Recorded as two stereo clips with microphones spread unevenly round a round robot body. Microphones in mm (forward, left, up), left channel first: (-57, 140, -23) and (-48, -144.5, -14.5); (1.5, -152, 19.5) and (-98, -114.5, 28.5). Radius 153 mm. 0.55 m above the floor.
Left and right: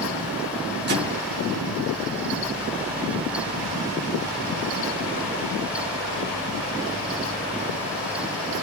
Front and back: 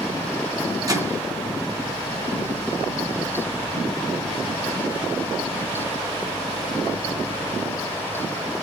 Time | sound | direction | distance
0.9 | a microwave | 140° right | 4.5 m